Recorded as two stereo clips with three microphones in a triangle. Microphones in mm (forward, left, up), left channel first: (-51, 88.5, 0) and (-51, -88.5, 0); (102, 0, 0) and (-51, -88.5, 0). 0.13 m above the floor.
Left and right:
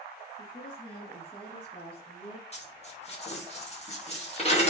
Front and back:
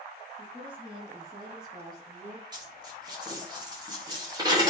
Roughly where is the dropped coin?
Behind left.